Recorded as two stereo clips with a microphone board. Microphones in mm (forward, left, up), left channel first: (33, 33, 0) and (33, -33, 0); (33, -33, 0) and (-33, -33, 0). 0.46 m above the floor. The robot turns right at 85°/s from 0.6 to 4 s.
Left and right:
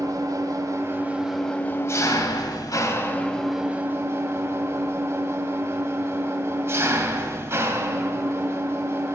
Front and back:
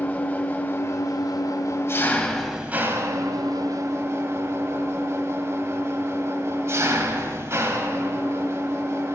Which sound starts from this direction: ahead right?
An engine running, at 0.0 s.